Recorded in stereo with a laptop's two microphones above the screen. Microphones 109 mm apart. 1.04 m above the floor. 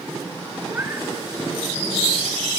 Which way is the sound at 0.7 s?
20° right (ahead or behind).